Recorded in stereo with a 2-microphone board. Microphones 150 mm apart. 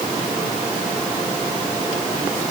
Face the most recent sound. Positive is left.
No sound to turn to.